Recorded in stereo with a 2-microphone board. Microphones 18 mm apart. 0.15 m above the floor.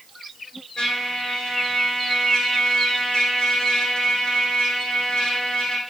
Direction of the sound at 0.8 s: 70° left (ahead or behind).